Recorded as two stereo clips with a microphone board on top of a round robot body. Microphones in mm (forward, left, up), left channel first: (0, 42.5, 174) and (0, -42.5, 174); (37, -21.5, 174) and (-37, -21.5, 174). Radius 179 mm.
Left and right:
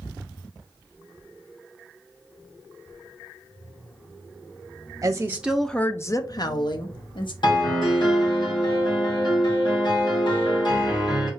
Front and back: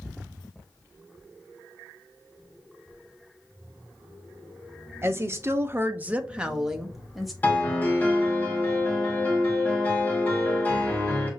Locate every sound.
5.0 s a woman speaking: 130° right, 0.9 m; by 7.3 s 90° left, 1.5 m
7.4 s a piano: 65° left, 1.9 m